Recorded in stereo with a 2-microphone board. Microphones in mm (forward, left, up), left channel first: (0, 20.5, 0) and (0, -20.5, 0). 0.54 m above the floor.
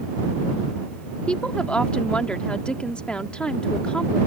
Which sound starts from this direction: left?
A woman speaking, at 1.3 s.